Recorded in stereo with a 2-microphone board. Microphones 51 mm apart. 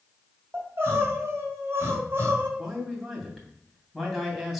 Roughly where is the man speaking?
Centre.